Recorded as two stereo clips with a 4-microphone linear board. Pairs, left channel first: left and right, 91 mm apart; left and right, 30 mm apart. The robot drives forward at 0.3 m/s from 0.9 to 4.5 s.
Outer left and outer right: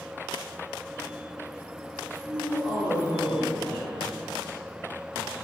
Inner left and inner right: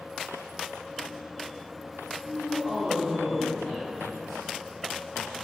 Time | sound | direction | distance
2.2 | a man speaking | 5° right (ahead or behind) | 2.5 m